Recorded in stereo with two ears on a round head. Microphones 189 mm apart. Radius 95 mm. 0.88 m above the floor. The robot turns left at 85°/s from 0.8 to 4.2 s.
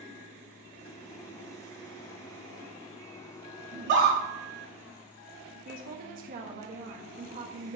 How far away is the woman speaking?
About 1.3 m.